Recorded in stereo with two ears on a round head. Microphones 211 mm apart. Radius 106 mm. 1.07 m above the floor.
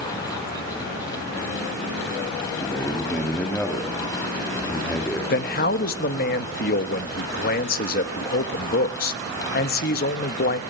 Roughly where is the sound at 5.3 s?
Left.